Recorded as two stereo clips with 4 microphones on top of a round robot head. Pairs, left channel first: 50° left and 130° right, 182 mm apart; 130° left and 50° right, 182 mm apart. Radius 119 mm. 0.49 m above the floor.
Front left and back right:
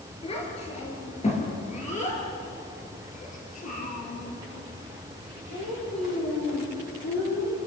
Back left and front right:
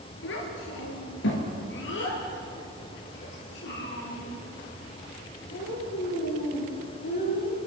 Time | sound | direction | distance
0.2 | a child speaking | 110° left | 6 m